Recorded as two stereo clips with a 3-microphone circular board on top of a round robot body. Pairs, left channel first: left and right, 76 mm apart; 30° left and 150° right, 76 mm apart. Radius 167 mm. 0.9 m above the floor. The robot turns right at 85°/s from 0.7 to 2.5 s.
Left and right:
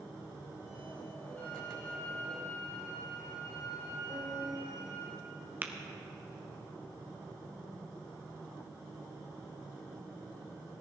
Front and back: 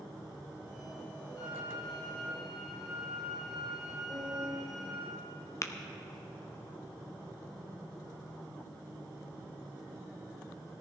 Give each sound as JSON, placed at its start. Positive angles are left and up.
{"t": 1.4, "sound": "a violin", "azimuth_deg": 25, "distance_m": 4.5}
{"t": 4.1, "sound": "a piano", "azimuth_deg": -145, "distance_m": 6.0}
{"t": 5.6, "sound": "tapping", "azimuth_deg": -20, "distance_m": 0.8}